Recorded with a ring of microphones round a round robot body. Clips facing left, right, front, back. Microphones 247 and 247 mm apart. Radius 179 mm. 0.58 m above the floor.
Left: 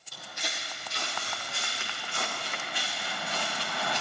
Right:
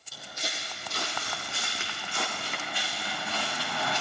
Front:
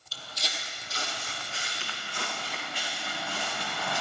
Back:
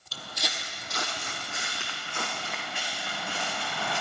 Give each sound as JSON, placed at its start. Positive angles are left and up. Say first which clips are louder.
{"t": 0.1, "sound": "footsteps", "louder": "right 1 dB, back 4 dB", "azimuth_deg": -175, "distance_m": 0.7}